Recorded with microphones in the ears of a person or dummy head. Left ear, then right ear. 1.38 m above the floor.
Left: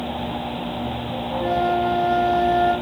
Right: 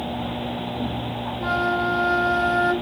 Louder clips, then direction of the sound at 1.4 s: Left 2 dB; 65° right (ahead or behind).